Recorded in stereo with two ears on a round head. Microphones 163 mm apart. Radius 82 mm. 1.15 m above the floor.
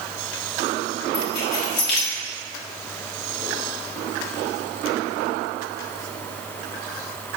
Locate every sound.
1.1 s keys jangling: 55° left (ahead or behind), 1.8 m